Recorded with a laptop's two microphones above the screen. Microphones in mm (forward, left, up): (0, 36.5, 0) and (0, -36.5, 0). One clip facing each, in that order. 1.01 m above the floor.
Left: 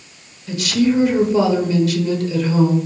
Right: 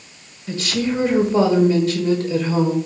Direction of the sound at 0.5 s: 30° right (ahead or behind).